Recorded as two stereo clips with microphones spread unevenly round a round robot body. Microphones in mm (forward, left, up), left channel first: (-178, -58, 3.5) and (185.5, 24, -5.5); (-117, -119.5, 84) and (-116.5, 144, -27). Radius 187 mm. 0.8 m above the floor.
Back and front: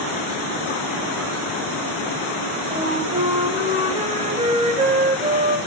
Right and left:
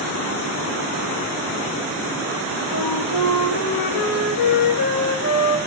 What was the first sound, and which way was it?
A flute, 55° right.